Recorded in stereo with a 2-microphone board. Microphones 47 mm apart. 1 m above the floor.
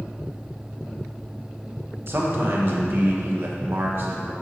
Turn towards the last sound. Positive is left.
turn(degrees=-50)  # may be behind; listen again after turning